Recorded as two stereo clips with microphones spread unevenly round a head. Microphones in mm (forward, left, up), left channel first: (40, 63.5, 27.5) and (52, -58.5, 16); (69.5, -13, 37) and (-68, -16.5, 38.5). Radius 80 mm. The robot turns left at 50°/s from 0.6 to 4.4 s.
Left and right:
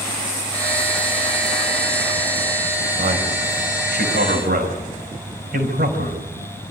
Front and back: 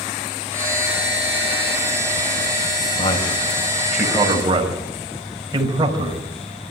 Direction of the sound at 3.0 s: 45° right.